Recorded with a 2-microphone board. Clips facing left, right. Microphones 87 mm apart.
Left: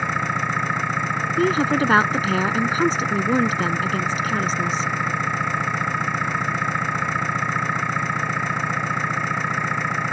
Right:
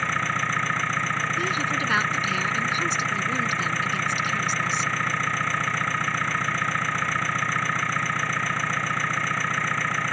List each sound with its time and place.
0.0 s an engine running: 15° left (ahead or behind)
1.4 s a woman speaking: 45° left (ahead or behind)